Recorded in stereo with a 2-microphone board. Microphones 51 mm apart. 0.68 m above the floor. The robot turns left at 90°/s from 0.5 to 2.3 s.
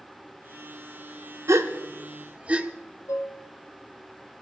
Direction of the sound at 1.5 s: 70° right (ahead or behind).